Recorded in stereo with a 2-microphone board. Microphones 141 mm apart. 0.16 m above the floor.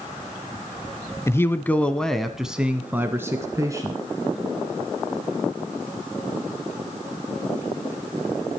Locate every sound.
1.3 s a man speaking: 20° left (ahead or behind), 1.0 m; by 4.0 s 25° right (ahead or behind), 1.4 m